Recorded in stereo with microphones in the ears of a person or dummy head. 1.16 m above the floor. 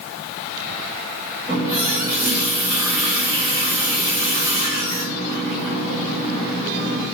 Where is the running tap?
10° right (ahead or behind), 1.1 m.